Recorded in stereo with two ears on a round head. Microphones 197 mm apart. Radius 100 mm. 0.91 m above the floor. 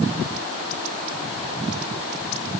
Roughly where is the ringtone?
No ringtone in this recording.